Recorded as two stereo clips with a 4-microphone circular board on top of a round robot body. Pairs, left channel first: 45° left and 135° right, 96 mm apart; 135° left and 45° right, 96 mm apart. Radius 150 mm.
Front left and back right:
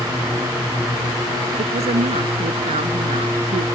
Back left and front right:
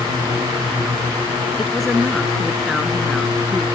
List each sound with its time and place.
1.6 s a woman speaking: 135° right